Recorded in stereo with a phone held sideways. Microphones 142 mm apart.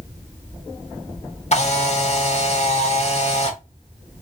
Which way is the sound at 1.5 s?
50° left (ahead or behind).